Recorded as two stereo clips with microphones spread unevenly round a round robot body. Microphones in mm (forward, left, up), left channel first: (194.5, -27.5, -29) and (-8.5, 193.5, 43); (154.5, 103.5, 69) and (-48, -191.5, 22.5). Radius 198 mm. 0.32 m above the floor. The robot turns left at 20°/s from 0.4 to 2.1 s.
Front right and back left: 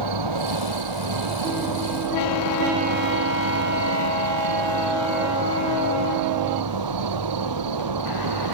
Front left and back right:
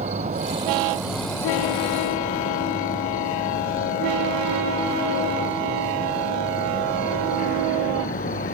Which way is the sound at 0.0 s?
160° left.